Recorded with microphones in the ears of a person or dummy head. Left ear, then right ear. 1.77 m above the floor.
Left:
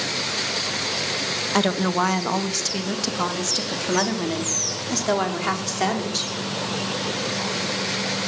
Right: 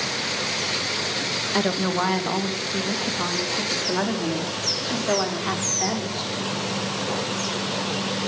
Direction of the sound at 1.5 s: 80° left.